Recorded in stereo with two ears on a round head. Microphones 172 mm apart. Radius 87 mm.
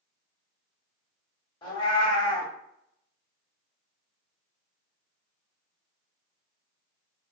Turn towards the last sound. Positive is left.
turn(degrees=25)  # may be behind; listen again after turning